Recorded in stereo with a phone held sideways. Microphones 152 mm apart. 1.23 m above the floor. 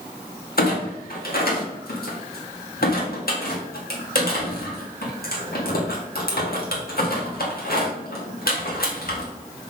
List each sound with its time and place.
0.6 s a clunk: 75° left (ahead or behind), 1.9 m